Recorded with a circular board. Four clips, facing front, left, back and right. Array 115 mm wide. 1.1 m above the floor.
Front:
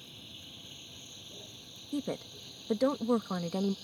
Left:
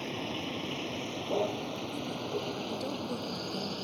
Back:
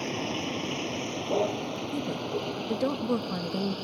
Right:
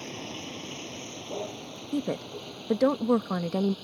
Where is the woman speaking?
85° right.